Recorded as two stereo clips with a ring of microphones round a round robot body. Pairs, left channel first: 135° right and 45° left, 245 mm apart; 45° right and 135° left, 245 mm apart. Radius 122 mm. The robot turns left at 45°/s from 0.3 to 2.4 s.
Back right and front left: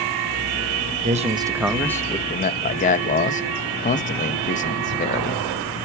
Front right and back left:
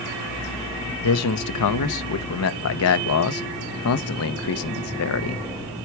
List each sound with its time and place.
1.0 s a man speaking: 15° right, 0.9 m; by 5.8 s 75° right, 0.9 m